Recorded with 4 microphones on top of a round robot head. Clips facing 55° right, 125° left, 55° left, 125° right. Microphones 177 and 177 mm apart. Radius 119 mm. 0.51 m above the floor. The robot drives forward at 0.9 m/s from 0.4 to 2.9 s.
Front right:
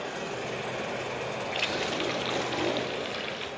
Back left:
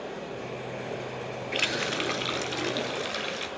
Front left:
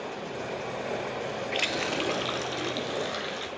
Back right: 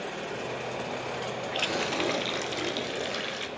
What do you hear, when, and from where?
1.5 s a running tap: 120° left, 0.6 m; by 3.5 s 165° left, 1.6 m